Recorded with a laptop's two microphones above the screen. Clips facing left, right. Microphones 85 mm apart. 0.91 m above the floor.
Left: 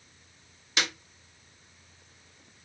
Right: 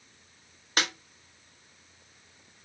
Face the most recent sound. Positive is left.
turn(degrees=-45)  # may be behind; listen again after turning